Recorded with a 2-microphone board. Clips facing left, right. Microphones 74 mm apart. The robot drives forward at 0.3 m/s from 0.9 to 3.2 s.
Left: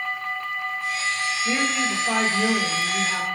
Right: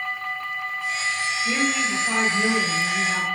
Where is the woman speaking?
15° left (ahead or behind), 1.1 m; by 3.3 s 10° left (ahead or behind), 1.4 m.